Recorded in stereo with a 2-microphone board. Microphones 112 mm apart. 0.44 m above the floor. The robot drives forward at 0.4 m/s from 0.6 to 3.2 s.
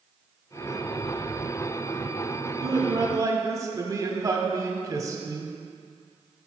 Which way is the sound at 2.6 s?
30° right (ahead or behind).